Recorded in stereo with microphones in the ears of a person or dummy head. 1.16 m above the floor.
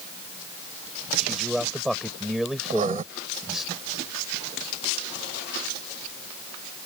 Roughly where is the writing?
Right.